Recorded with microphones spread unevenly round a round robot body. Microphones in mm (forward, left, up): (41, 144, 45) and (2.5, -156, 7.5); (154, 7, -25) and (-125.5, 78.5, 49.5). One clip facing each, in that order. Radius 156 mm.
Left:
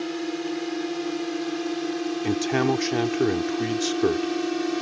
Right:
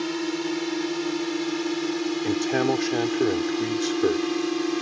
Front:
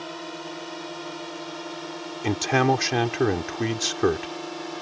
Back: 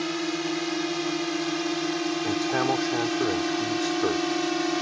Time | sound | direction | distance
0.0 | a drone | 165° right | ?
2.2 | a man speaking | 10° left | ?